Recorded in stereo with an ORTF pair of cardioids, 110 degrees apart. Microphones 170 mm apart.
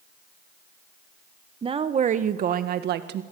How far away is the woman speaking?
About 1.4 m.